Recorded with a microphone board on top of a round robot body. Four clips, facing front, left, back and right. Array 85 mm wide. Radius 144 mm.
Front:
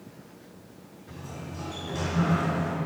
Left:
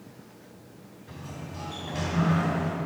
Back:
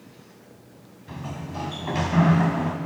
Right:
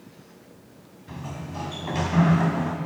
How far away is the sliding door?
About 1.1 m.